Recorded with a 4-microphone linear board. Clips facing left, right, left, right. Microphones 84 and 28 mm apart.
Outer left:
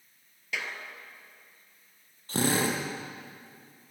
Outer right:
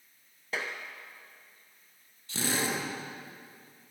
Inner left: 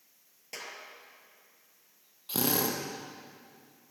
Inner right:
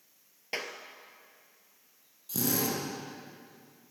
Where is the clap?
35° right (ahead or behind), 2.5 m.